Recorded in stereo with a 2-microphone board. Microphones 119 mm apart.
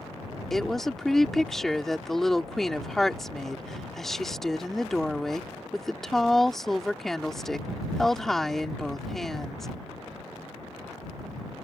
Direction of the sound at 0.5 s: 5° left (ahead or behind).